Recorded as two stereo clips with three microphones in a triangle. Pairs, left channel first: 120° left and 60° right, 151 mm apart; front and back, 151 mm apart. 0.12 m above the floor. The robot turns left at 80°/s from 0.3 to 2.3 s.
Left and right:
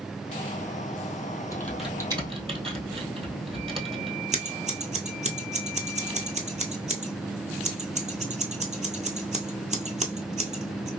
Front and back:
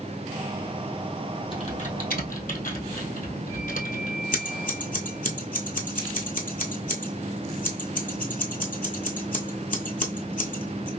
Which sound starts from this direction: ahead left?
Typing on a keyboard, at 1.5 s.